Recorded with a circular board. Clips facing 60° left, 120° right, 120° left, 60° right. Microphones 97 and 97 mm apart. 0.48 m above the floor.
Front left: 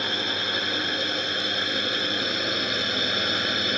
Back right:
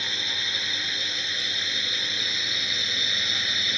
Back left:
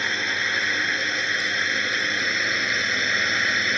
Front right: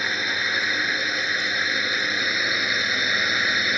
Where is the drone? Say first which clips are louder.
Front left 6 dB, even; 25° left.